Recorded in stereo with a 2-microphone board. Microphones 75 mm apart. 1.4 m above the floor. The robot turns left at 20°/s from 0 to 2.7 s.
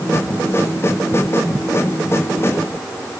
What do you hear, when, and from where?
Only background noise.